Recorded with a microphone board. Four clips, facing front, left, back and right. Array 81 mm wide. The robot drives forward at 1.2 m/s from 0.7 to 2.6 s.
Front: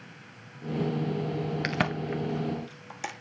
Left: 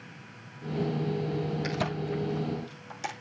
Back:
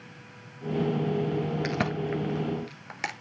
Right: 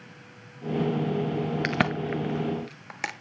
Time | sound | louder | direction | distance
1.6 | a crack | right 5 dB, back 1 dB | 70° right | 1.4 m